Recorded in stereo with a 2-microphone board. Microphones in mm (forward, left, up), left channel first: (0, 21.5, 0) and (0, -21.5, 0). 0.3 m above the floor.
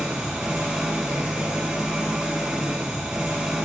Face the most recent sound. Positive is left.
turn(degrees=-15)  # may be behind; listen again after turning